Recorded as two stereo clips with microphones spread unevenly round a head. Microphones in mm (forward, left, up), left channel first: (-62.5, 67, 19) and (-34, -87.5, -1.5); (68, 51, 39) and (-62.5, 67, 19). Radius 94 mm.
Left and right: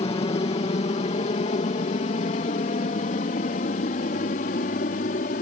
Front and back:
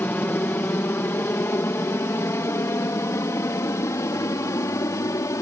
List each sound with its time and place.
0.0 s an aircraft: 65° left; by 5.4 s 60° left